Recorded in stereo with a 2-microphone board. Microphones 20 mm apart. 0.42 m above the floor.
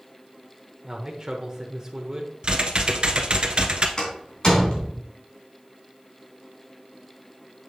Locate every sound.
0.8 s a man speaking: 30° right (ahead or behind), 1.2 m
2.4 s typing on a keyboard: 45° right (ahead or behind), 0.9 m
4.0 s a door slam: 40° left (ahead or behind), 3 m